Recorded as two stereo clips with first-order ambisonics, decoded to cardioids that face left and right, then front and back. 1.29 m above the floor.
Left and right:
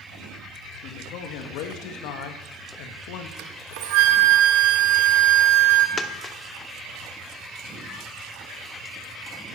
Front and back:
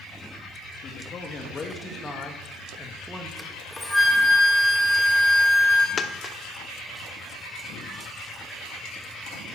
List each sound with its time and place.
0.8 s a man speaking: 60° left, 2.5 m; by 3.3 s 105° left, 2 m
3.4 s a flute: 85° right, 1.6 m
6.0 s a dropped coin: 45° left, 0.9 m